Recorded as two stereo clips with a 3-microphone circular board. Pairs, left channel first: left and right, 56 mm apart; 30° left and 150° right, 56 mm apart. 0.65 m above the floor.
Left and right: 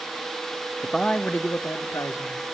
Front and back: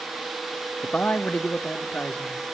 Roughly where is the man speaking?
Ahead.